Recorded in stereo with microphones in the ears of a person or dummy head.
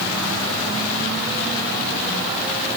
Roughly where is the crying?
No crying in this recording.